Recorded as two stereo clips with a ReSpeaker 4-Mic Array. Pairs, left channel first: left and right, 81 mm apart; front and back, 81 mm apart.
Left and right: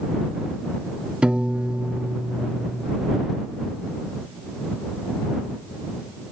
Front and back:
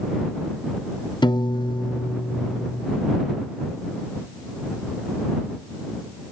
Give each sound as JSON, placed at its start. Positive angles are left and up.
{"t": 1.2, "sound": "a piano", "azimuth_deg": -15}